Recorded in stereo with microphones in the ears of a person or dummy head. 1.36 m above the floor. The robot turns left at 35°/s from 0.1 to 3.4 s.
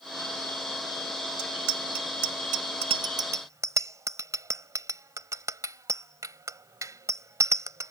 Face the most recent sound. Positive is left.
turn(degrees=-10)  # may be behind; listen again after turning